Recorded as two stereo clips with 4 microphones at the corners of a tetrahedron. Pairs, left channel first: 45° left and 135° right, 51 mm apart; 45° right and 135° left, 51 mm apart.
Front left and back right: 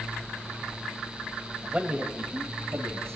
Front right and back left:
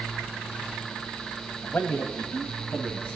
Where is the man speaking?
65° right, 1.5 m; by 3.1 s 110° right, 2 m.